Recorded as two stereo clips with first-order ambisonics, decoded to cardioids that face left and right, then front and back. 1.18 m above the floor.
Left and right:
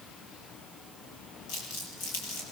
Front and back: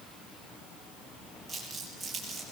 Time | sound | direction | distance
1.5 | crumpling | 115° left | 8.5 m